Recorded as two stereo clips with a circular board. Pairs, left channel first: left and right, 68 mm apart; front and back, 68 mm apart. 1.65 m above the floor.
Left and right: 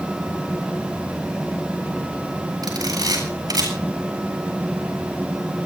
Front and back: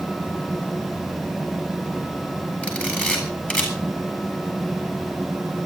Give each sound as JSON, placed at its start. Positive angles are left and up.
{"t": 2.6, "sound": "a camera shutter", "azimuth_deg": -70, "distance_m": 8.0}